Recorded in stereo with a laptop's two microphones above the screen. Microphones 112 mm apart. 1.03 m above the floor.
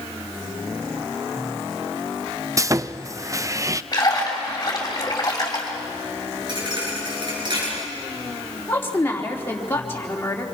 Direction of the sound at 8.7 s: 20° left (ahead or behind).